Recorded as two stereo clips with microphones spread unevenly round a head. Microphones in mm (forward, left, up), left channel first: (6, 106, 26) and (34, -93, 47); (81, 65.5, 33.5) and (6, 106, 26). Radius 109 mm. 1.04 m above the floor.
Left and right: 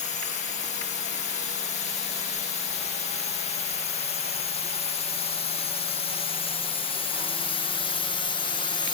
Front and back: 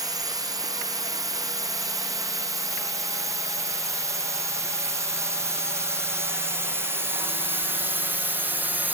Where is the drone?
135° left; by 9.0 s 115° left.